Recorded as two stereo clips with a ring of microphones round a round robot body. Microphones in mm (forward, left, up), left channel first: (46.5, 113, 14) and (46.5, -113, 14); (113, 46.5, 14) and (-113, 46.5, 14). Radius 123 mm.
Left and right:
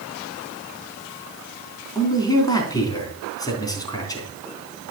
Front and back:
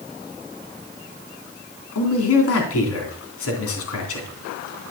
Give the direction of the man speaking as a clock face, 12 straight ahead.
11 o'clock.